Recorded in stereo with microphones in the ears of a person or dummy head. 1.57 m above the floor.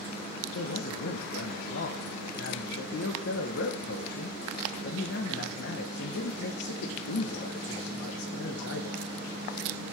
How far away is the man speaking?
About 1.2 m.